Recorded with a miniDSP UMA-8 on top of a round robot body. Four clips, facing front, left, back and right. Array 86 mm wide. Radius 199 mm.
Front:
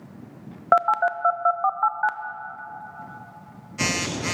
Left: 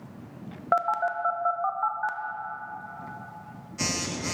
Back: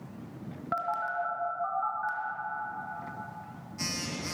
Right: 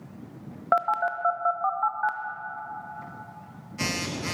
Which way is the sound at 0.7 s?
10° right.